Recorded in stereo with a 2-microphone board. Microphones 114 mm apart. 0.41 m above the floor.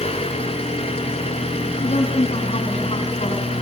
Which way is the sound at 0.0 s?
65° left (ahead or behind).